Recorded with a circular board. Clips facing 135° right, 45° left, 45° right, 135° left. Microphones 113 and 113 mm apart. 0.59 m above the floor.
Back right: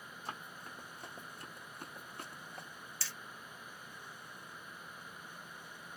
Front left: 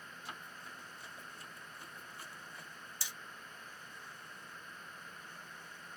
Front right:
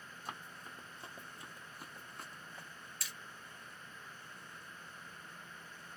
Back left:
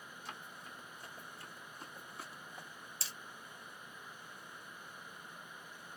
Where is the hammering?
105° left, 0.6 m.